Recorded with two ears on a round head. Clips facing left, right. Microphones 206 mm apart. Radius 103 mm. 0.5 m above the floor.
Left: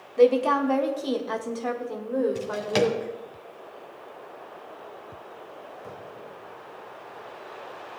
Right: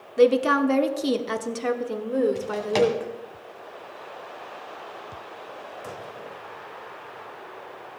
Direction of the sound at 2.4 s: 15° left (ahead or behind).